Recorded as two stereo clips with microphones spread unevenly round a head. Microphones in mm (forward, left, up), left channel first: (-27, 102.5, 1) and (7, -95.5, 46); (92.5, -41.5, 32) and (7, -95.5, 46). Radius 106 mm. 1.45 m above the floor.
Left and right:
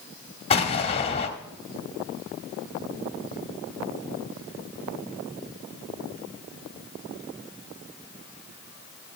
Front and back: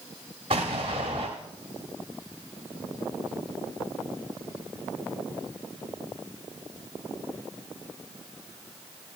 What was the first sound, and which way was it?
An explosion, 165° left.